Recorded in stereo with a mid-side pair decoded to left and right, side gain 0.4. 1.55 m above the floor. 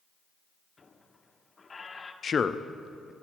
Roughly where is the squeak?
Ahead left.